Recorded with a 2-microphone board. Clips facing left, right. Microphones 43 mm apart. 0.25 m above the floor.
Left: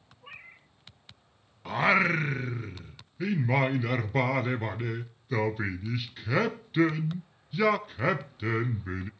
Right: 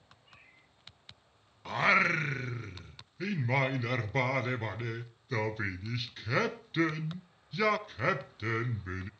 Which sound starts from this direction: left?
A cat meowing, at 0.2 s.